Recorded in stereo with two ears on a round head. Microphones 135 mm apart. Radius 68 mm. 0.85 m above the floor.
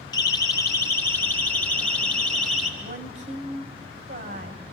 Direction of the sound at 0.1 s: 25° left (ahead or behind).